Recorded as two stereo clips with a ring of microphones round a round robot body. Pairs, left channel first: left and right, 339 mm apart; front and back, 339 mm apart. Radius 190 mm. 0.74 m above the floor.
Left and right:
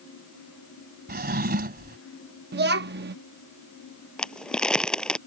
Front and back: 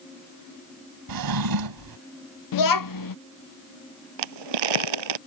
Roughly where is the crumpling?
Behind.